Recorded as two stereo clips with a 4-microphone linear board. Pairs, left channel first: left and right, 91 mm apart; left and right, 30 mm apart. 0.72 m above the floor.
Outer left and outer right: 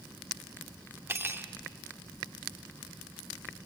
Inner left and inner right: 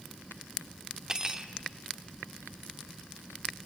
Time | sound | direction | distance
1.1 | cutlery clinking | 30° right (ahead or behind) | 1.0 m